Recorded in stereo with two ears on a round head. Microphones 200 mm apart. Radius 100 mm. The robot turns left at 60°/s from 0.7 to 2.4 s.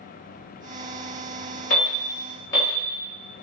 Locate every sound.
1.7 s an alarm: 40° left (ahead or behind), 1.6 m; by 2.8 s 15° left (ahead or behind), 1.6 m